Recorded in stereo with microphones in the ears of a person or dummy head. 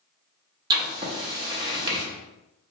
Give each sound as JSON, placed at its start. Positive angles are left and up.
{"t": 0.7, "sound": "writing", "side_deg": -20, "distance_m": 0.6}